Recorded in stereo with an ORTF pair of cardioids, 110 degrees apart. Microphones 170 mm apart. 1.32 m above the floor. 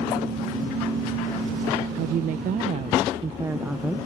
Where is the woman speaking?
65° right; by 4.0 s straight ahead.